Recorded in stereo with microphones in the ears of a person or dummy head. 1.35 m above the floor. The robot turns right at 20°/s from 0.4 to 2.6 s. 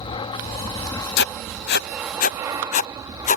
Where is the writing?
55° left (ahead or behind); by 3.4 s 35° left (ahead or behind).